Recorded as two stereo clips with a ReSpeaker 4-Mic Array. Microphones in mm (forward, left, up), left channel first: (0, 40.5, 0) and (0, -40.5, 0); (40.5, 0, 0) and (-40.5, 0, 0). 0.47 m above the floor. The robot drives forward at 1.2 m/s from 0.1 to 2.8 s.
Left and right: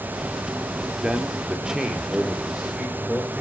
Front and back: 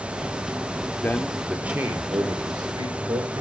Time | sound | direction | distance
1.0 | a man speaking | 20° right | 1.1 m